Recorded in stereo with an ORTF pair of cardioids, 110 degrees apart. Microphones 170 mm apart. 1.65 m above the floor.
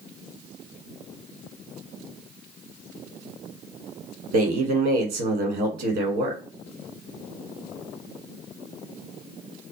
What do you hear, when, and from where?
4.3 s a man speaking: 65° right, 1.3 m